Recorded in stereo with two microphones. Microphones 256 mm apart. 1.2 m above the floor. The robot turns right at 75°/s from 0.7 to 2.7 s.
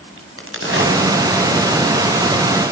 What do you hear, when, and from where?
0.2 s a crack: 55° right (ahead or behind), 7 m; by 2.3 s 70° left (ahead or behind), 7 m